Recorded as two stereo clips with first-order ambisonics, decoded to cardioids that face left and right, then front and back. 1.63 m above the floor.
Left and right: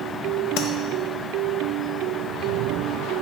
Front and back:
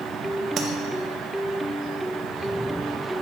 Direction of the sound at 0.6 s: 115° left.